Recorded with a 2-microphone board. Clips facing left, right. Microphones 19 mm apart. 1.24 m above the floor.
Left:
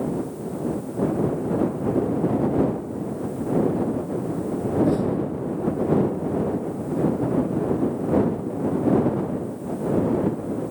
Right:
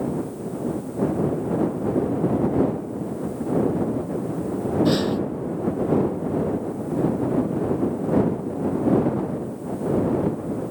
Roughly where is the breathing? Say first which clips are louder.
Right 1 dB; right.